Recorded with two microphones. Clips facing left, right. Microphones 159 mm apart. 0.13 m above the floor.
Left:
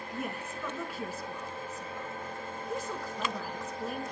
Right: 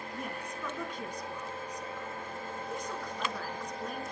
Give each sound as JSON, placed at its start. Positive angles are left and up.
{"t": 0.1, "sound": "a woman speaking", "side_deg": 5, "distance_m": 1.1}